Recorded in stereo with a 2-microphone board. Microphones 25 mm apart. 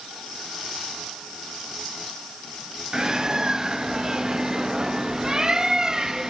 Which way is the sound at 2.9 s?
25° right (ahead or behind).